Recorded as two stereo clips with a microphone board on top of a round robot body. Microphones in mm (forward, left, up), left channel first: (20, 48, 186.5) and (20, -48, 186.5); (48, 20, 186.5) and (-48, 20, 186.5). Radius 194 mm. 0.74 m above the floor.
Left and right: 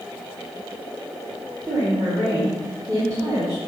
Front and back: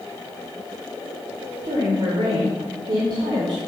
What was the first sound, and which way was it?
A woman speaking, 145° right.